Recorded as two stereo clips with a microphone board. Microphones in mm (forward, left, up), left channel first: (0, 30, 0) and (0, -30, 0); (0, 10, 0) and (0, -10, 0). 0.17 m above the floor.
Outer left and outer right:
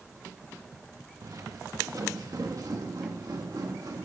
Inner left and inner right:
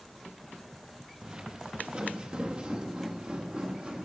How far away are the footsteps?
About 1.5 m.